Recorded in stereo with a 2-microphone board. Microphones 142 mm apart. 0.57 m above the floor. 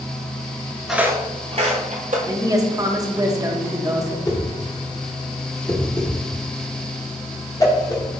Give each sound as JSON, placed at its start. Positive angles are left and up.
{"t": 0.9, "sound": "footsteps", "side_deg": 0, "distance_m": 0.5}
{"t": 2.3, "sound": "a woman speaking", "side_deg": -25, "distance_m": 0.7}
{"t": 4.3, "sound": "a whoosh", "side_deg": 25, "distance_m": 0.9}